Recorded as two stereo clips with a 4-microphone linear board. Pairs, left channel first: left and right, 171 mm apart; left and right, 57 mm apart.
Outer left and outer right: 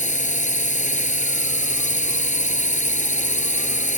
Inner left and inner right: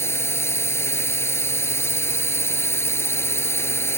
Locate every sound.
0.0 s a drone: 45° left (ahead or behind)